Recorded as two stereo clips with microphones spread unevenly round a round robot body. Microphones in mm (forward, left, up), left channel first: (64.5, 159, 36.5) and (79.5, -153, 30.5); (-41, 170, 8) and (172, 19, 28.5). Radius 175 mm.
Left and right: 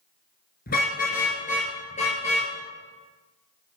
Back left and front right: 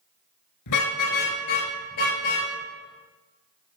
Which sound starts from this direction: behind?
A car horn, at 0.7 s.